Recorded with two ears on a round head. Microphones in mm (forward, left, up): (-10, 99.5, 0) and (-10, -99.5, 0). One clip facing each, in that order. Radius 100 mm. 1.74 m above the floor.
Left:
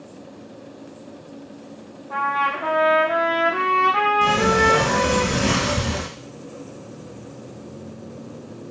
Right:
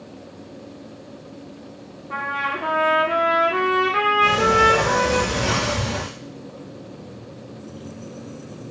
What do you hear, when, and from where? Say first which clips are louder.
2.1 s a trumpet: left 3 dB; 35° right (ahead or behind), 0.6 m
4.2 s a sliding door: even; 45° left (ahead or behind), 0.7 m